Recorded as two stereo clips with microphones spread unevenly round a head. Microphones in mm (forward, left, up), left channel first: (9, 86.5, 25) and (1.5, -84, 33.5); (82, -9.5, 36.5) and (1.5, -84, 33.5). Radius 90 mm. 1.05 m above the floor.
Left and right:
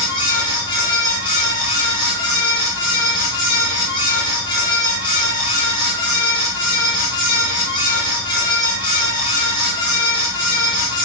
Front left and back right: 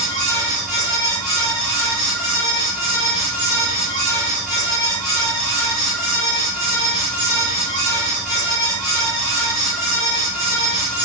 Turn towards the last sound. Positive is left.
turn(degrees=140)